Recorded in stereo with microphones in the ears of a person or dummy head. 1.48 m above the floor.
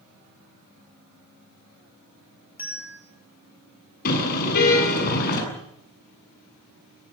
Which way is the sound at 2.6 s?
10° right (ahead or behind).